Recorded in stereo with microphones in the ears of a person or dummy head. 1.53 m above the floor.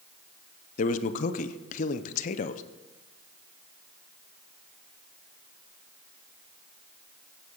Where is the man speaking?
45° left (ahead or behind), 0.8 m.